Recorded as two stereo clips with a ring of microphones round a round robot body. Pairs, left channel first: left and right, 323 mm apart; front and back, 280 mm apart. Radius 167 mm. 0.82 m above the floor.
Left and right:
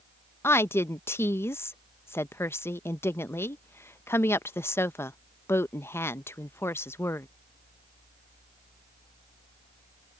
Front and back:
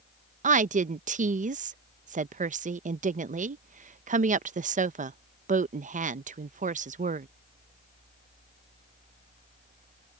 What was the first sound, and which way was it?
A woman speaking, 165° left.